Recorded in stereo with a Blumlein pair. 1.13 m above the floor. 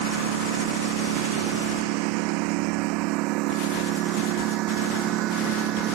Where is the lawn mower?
45° right; by 6.0 s 35° right.